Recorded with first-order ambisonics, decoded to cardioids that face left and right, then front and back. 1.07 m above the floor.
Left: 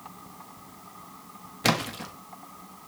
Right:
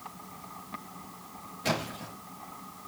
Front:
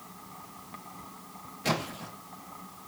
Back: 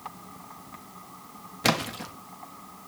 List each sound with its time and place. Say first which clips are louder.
1.6 s a splash: left 6 dB, back 5 dB; 135° left, 1.1 m